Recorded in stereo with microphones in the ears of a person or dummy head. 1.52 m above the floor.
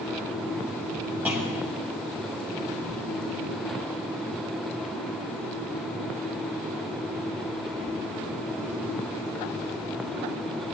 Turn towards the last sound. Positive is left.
turn(degrees=-10)  # may be behind; listen again after turning